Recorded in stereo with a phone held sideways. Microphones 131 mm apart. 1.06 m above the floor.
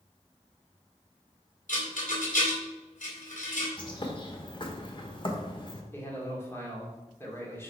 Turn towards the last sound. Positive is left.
turn(degrees=20)  # may be behind; listen again after turning